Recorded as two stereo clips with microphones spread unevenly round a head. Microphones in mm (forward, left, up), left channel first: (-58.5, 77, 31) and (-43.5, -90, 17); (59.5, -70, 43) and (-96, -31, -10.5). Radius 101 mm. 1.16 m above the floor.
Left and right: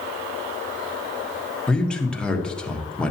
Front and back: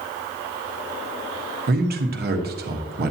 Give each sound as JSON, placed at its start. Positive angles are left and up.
{"t": 1.7, "sound": "a man speaking", "azimuth_deg": 180, "distance_m": 1.2}